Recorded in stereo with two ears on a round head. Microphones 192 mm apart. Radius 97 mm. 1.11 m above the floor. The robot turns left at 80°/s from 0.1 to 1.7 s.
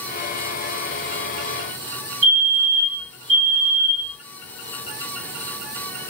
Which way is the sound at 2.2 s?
55° right (ahead or behind).